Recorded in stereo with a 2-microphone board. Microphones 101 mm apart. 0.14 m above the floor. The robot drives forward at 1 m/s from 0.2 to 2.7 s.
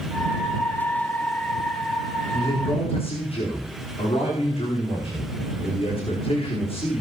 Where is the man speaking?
70° left (ahead or behind), 9.5 m.